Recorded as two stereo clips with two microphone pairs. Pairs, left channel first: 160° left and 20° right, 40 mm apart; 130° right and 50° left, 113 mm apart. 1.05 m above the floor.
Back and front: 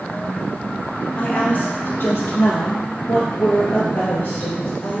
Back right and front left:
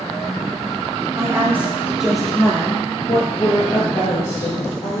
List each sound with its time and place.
1.2 s a woman speaking: 110° left, 1.4 m; by 5.0 s 155° right, 2.0 m